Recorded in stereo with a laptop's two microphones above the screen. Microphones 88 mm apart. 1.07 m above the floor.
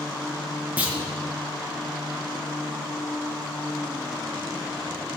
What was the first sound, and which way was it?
A clunk, 15° right (ahead or behind).